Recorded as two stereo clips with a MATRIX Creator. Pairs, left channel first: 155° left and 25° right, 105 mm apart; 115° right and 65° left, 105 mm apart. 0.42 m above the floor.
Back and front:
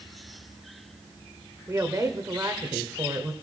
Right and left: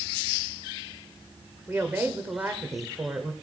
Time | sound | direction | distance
1.7 | a woman speaking | 10° left | 1.5 m